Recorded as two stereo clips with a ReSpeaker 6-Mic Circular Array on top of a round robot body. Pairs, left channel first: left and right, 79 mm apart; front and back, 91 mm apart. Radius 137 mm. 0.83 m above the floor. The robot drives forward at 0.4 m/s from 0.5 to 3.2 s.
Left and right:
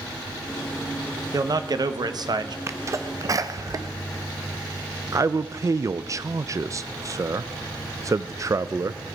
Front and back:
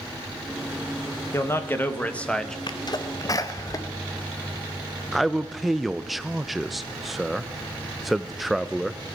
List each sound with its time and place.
1.3 s a man speaking: 55° right, 1.2 m; by 2.6 s 85° right, 1.1 m
2.7 s a sneeze: 35° right, 0.9 m; by 3.9 s 45° right, 0.7 m
5.1 s a man speaking: 90° right, 0.5 m